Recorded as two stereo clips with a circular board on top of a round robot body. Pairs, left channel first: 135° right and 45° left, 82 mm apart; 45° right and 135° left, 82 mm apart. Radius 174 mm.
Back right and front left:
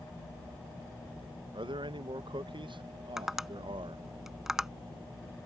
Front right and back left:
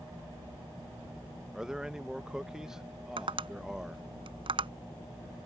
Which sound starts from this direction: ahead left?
A man speaking, at 1.5 s.